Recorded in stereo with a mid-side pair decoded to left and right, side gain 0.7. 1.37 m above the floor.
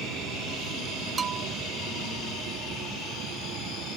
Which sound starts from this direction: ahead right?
A bell, at 1.2 s.